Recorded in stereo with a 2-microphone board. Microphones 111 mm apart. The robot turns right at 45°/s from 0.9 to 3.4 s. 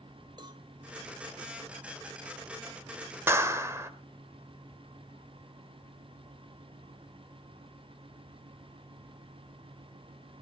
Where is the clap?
20° right (ahead or behind), 1.2 m; by 3.9 s 25° right (ahead or behind), 1.2 m.